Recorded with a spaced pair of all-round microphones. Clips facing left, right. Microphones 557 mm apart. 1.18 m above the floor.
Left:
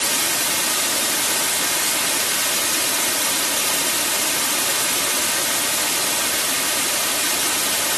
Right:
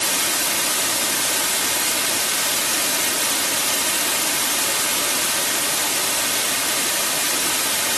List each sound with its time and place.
Only background noise.